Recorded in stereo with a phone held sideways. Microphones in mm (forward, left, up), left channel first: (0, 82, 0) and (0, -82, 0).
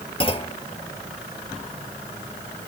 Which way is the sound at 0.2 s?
35° left (ahead or behind).